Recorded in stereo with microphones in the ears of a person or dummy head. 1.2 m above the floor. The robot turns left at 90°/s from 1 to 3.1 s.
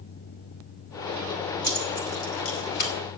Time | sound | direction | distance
1.6 | keys jangling | 25° left (ahead or behind) | 4.5 m